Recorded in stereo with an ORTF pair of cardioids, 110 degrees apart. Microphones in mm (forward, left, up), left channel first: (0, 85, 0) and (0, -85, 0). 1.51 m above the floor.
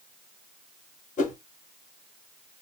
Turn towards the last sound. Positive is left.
turn(degrees=50)